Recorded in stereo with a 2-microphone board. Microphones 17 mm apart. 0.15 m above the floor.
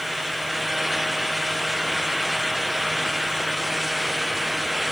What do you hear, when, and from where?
Only background noise.